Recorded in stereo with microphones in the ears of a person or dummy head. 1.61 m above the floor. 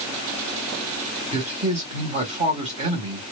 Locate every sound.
1.3 s a man speaking: 35° right (ahead or behind), 1.4 m